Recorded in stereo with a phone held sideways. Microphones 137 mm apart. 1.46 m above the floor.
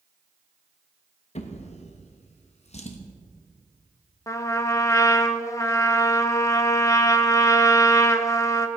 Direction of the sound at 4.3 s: 25° left (ahead or behind).